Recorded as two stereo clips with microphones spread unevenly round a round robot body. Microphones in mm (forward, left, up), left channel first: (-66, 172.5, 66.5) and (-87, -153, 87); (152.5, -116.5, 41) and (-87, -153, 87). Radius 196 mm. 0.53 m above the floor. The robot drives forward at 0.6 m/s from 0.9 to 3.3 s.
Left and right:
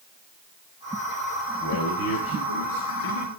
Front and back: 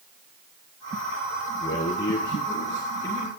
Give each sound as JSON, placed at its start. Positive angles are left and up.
{"t": 1.6, "sound": "a man speaking", "azimuth_deg": 70, "distance_m": 3.5}